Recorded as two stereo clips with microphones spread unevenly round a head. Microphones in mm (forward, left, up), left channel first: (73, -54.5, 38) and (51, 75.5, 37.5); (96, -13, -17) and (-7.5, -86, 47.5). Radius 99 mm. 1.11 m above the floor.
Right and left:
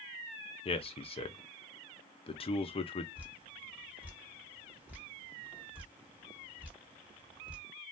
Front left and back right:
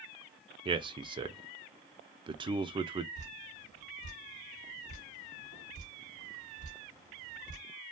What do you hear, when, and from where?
0.7 s a man speaking: 70° right, 0.6 m
3.1 s dripping: 20° left, 1.3 m